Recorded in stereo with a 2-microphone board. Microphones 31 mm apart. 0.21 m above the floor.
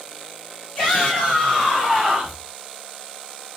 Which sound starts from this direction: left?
A shout, at 0.8 s.